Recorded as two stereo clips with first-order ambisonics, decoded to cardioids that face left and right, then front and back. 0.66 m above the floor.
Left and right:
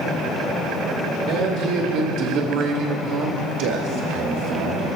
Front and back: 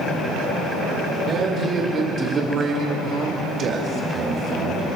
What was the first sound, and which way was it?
A man speaking, 120° right.